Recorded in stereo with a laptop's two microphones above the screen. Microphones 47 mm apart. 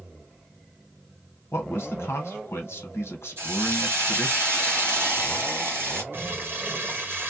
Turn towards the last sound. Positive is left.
turn(degrees=-55)  # may be behind; listen again after turning